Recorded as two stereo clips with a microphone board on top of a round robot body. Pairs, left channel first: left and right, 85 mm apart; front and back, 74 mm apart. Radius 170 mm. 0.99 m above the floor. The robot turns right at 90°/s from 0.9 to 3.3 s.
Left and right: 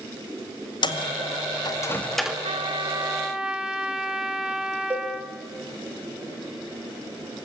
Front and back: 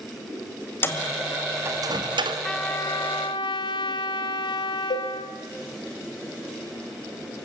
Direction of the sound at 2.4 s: 85° right.